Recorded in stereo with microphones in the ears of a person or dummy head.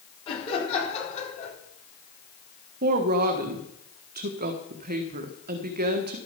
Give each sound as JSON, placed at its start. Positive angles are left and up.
{"t": 0.3, "sound": "laughter", "side_deg": 25, "distance_m": 4.0}
{"t": 2.8, "sound": "a woman speaking", "side_deg": -40, "distance_m": 1.6}